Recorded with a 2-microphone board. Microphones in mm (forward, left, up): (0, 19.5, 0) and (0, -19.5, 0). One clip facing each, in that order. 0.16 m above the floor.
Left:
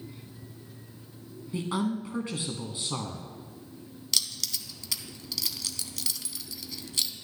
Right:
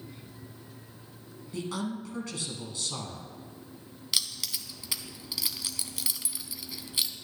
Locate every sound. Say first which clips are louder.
1.5 s a woman speaking: left 4 dB; 25° left (ahead or behind), 1.3 m
4.1 s keys jangling: even; 15° right (ahead or behind), 0.7 m